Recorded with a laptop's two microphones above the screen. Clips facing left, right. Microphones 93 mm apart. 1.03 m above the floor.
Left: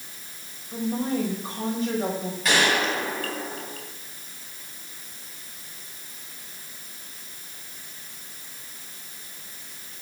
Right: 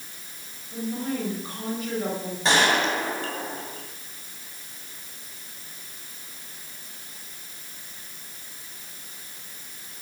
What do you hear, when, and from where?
0.7 s a woman speaking: 30° left (ahead or behind), 5.5 m
2.5 s a gunshot: 30° right (ahead or behind), 3 m